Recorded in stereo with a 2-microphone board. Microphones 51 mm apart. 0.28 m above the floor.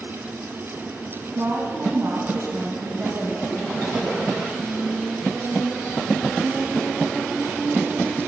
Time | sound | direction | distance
1.4 | a woman speaking | 60° right (ahead or behind) | 2 m